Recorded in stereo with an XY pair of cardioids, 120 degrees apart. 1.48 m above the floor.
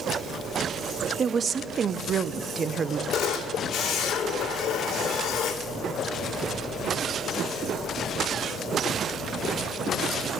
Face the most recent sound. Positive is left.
turn(degrees=70)